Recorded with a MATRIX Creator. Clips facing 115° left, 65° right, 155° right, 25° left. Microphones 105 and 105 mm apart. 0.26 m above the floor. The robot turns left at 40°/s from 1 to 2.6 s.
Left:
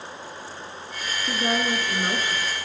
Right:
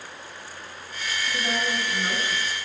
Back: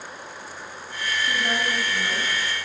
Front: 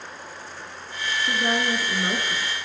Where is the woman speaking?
85° left, 3 m; by 2.5 s 40° left, 3 m.